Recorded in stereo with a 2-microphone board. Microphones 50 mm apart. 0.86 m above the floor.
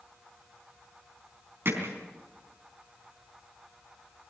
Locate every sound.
1.6 s hammering: 50° right (ahead or behind), 4 m